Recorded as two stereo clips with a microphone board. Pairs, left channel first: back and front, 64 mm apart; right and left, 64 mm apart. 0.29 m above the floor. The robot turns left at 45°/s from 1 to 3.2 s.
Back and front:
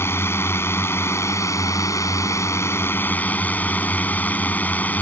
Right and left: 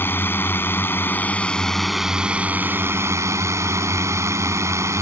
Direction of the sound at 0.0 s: 140° right.